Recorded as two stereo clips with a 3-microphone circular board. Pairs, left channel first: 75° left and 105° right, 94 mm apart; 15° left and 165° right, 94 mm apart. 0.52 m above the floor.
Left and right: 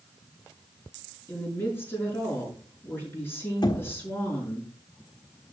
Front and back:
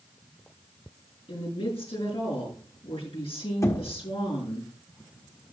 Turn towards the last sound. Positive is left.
turn(degrees=60)